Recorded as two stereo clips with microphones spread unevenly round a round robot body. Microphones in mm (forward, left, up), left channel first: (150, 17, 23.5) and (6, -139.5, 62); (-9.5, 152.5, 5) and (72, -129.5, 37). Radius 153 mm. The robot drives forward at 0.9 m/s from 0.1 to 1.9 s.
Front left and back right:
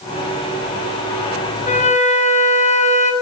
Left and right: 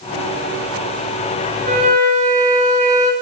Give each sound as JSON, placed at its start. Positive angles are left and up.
{"t": 1.6, "sound": "a flute", "azimuth_deg": -10, "distance_m": 2.0}